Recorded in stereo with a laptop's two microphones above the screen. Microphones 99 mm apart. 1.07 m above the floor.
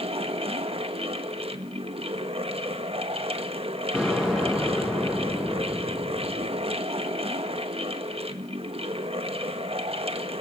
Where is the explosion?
10° right (ahead or behind), 7 m.